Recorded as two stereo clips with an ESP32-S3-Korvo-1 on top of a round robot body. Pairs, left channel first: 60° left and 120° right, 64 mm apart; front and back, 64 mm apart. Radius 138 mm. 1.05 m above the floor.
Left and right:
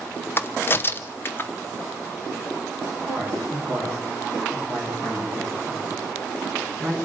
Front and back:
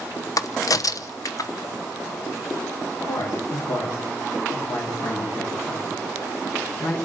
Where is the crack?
10° left, 1.1 m.